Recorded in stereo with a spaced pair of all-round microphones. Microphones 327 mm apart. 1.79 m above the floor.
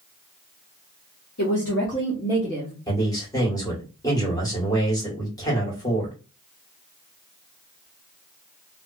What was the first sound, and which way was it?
A woman speaking, 60° left (ahead or behind).